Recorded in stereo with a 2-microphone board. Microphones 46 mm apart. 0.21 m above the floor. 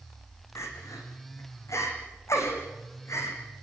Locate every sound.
0.6 s crying: 80° left, 5.5 m